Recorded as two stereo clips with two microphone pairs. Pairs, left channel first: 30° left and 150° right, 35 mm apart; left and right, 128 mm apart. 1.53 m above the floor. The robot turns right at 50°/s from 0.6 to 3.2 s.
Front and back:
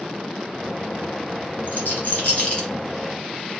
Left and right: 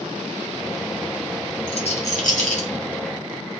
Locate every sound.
1.7 s a rattle: 45° left, 1.6 m; by 2.7 s 100° left, 1.6 m